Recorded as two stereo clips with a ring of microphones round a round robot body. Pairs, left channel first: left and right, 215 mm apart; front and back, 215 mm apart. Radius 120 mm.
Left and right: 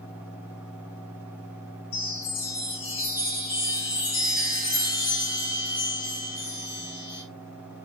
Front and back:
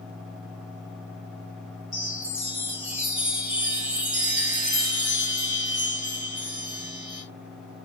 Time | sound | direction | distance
1.9 | a chime | 110° left | 4.5 m